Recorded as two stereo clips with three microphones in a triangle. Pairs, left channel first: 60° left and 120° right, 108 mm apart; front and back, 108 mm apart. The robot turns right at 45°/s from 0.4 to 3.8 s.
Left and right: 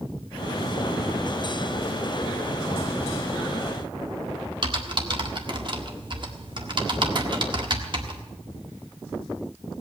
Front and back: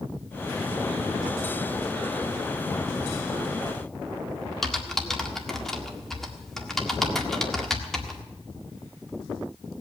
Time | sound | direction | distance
4.6 | typing on a keyboard | 85° right | 1.6 m